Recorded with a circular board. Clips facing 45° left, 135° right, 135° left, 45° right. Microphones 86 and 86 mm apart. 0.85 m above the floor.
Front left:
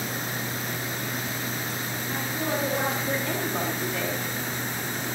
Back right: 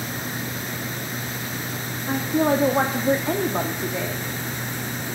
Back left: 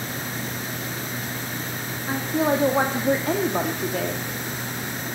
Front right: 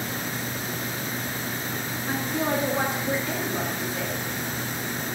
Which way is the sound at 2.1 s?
145° right.